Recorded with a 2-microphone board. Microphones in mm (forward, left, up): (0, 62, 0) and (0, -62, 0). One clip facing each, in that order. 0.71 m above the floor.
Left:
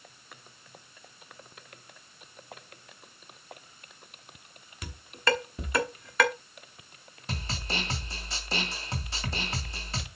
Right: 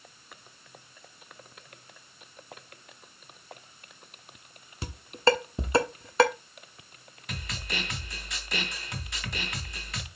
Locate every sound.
4.8 s dishes clattering: 30° right (ahead or behind), 1.1 m
7.3 s a snare drum: 30° left (ahead or behind), 1.9 m